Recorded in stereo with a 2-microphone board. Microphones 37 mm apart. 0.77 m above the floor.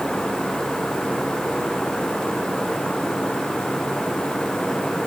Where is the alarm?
No alarm in this recording.